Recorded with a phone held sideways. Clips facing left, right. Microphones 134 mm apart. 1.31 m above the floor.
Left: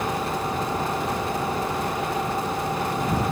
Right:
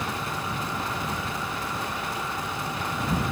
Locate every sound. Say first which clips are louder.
0.0 s an engine running: left 6 dB; 40° left (ahead or behind)